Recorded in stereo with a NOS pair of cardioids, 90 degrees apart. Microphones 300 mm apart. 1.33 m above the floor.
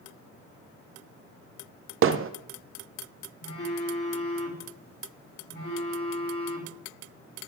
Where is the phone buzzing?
35° left, 3 m.